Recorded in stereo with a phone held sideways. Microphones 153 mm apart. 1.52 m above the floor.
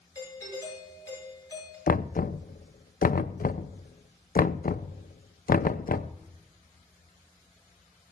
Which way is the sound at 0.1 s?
20° left (ahead or behind).